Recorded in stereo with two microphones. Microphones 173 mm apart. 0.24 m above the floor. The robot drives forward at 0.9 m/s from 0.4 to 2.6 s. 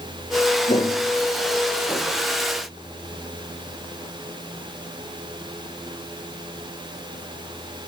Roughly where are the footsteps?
Left.